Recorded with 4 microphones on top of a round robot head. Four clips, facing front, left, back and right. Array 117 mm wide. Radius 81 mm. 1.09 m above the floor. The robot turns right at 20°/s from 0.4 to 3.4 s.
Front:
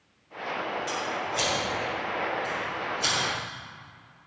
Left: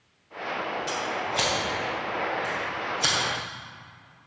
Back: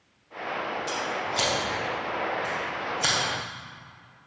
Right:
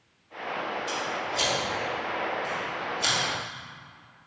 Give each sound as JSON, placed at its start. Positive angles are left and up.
{"t": 0.9, "sound": "scissors", "azimuth_deg": 105, "distance_m": 3.5}